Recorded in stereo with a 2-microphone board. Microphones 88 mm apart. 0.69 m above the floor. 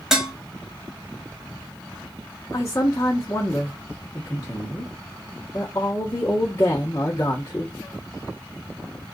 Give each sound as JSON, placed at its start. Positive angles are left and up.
{"t": 0.1, "sound": "dishes clattering", "side_deg": -5, "distance_m": 0.7}
{"t": 2.5, "sound": "a man speaking", "side_deg": 35, "distance_m": 1.2}